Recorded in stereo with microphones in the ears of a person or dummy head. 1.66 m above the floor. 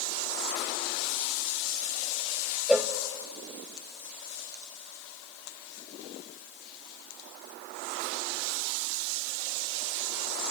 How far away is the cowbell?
About 0.6 m.